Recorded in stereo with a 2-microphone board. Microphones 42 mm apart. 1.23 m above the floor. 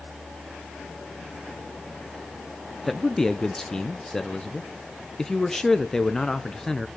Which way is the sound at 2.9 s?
10° left (ahead or behind).